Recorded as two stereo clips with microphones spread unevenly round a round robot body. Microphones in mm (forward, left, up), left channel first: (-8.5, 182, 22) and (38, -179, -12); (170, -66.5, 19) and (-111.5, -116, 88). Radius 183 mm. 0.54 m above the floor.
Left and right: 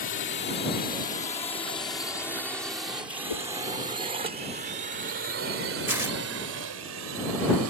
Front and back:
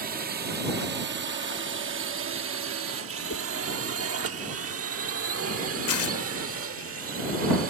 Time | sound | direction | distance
0.0 | a drone | 130° left | ?
3.3 | a whoosh | 70° left | ?
5.9 | tearing paper | straight ahead | ?